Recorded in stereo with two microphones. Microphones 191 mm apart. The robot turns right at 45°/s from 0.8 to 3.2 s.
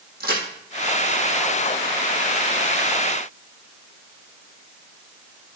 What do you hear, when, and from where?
0.2 s a crack: 55° right (ahead or behind), 3.5 m